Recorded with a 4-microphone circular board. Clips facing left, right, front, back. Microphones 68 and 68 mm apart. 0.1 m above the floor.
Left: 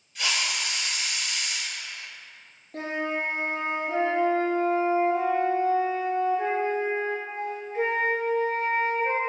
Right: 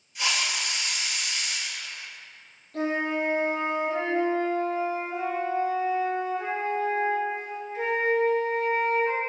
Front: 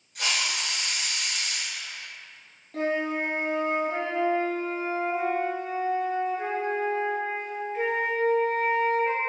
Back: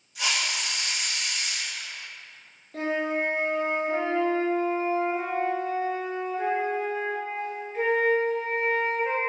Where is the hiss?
15° right, 1.2 m.